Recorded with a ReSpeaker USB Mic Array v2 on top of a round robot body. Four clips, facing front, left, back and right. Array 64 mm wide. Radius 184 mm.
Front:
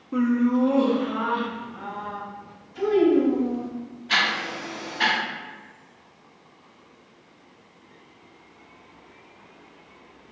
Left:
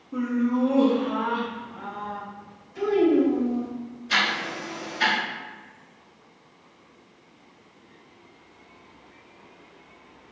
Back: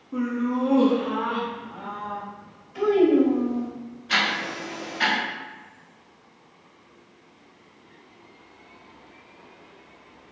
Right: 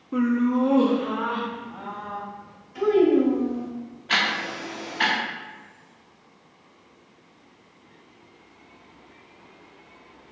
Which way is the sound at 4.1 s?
85° right.